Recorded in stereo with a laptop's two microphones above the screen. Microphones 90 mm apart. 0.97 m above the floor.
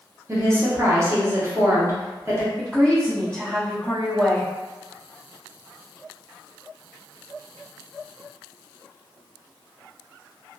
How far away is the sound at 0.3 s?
About 0.8 m.